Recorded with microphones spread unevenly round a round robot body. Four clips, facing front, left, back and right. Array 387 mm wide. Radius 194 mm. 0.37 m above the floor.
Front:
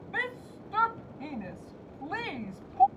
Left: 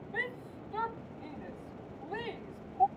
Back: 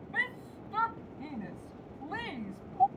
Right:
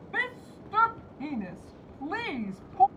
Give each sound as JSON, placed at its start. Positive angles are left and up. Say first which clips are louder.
{"t": 0.1, "sound": "a shout", "louder": "right 5 dB, front 2 dB", "azimuth_deg": -90}